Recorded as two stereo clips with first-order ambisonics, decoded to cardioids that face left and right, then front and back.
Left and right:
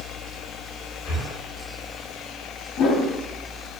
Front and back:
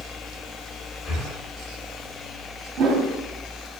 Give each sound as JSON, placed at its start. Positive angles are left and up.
{"t": 1.1, "sound": "breathing", "azimuth_deg": 50, "distance_m": 1.4}
{"t": 2.8, "sound": "a whoosh", "azimuth_deg": 130, "distance_m": 0.6}